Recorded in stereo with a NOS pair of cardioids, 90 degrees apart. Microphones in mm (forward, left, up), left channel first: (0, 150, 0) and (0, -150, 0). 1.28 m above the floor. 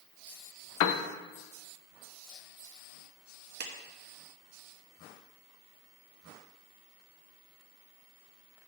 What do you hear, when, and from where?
0.8 s a piano: 70° left, 0.6 m
3.6 s a clap: 35° right, 1.2 m